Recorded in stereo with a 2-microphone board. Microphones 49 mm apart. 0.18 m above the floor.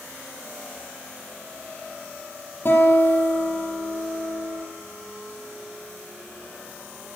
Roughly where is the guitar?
Left.